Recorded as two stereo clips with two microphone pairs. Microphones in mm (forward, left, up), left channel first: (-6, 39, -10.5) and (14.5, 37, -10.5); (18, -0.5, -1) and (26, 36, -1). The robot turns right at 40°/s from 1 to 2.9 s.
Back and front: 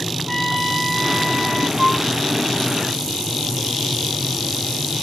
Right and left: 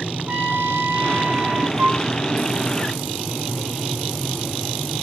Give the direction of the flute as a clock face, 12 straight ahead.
10 o'clock.